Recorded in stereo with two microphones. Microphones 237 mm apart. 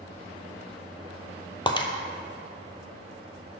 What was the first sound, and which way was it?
Breaking glass, 20° left (ahead or behind).